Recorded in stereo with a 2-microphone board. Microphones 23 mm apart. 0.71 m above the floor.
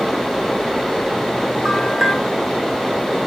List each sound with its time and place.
1.6 s a bell: 5° right (ahead or behind), 0.8 m